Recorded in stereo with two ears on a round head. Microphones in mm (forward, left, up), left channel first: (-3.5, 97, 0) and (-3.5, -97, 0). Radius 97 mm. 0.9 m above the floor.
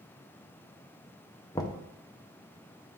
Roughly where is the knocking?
Centre.